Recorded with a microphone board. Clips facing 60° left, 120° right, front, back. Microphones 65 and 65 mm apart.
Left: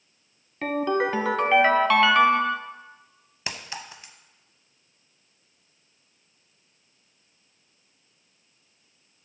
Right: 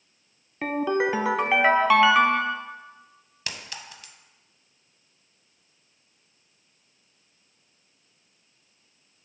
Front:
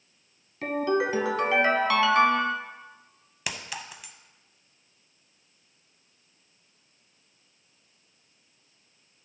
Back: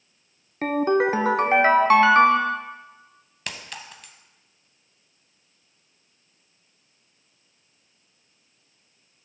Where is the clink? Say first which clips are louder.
Left 3 dB, front 1 dB; 75° left, 0.6 m.